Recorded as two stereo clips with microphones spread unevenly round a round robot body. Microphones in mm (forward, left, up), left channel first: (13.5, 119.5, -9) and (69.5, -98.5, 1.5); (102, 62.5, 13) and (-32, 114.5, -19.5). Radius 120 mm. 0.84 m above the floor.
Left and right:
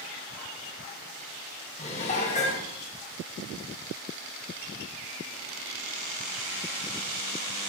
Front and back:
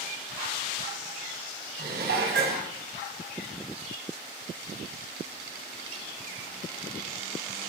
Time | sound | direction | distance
1.8 | dishes clattering | 170° left | 3.5 m